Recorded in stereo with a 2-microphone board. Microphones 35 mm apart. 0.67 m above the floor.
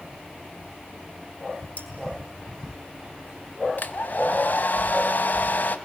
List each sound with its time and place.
1.8 s cutlery clinking: 50° left (ahead or behind), 5 m
3.8 s a hair dryer: 55° left (ahead or behind), 1.8 m